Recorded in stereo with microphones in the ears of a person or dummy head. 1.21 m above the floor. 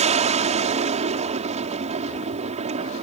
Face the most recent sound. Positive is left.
turn(degrees=-35)  # may be behind; listen again after turning